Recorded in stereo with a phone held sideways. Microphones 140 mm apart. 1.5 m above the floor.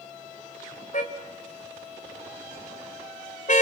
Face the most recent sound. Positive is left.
turn(degrees=65)  # may be behind; listen again after turning